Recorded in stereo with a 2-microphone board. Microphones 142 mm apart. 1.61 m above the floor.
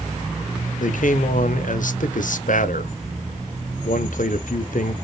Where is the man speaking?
75° left (ahead or behind), 0.6 m.